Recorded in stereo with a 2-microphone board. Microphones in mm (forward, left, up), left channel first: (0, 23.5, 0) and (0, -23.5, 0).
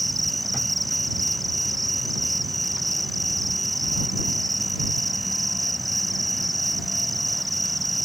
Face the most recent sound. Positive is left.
turn(degrees=0)  # may be behind; listen again after turning